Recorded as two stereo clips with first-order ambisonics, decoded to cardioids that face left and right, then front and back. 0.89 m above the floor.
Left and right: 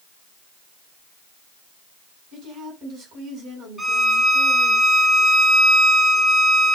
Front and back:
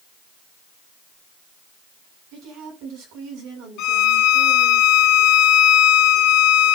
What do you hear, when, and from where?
2.3 s a woman speaking: 140° right, 8 m
3.8 s a violin: 5° right, 1.1 m